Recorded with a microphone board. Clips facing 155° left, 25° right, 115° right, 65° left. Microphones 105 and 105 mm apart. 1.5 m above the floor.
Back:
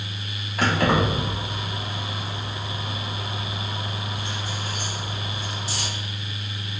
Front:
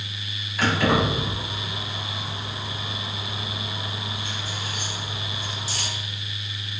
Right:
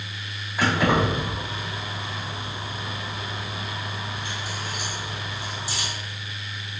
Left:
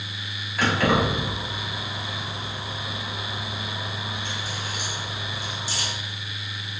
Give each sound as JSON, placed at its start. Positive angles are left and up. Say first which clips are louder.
{"t": 0.6, "sound": "keys jangling", "louder": "even, even", "azimuth_deg": 175, "distance_m": 1.3}